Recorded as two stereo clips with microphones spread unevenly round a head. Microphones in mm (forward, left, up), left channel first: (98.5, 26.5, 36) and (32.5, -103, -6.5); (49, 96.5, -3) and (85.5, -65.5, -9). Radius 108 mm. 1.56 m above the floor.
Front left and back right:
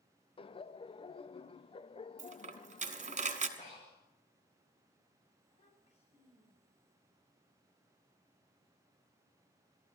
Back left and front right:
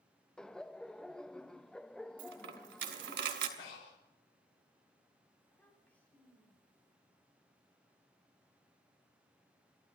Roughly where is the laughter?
Ahead.